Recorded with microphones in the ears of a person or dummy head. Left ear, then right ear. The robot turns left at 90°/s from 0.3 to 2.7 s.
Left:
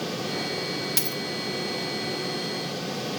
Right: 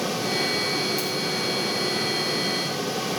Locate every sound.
1.0 s a dropped coin: 65° left (ahead or behind), 1.9 m; by 1.2 s 60° left (ahead or behind), 1.9 m